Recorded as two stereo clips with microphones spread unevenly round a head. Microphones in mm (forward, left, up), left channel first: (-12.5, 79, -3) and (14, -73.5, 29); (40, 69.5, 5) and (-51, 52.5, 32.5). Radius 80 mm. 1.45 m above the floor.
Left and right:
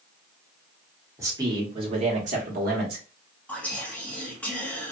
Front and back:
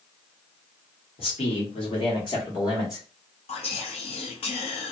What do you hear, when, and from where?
1.2 s a man speaking: 5° right, 1.3 m; by 3.0 s 55° right, 1.2 m
3.5 s whispering: 20° left, 1.1 m